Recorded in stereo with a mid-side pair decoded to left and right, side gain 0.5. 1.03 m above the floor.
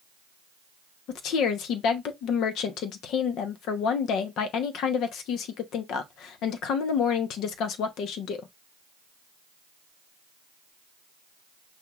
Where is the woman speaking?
70° left, 0.9 m.